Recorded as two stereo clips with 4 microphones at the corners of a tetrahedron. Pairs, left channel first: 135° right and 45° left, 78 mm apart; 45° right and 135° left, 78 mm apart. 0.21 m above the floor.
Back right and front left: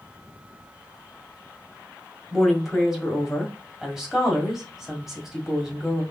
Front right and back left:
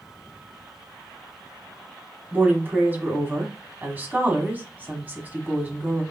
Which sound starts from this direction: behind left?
A woman speaking, at 2.3 s.